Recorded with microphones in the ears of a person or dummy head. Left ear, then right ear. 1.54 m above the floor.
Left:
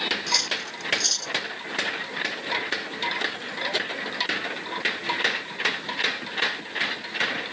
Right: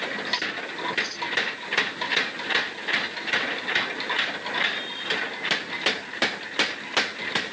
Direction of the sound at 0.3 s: 60° left (ahead or behind).